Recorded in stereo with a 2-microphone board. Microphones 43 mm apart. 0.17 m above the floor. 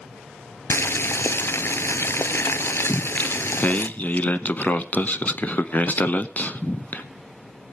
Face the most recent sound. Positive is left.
turn(degrees=40)  # may be behind; listen again after turning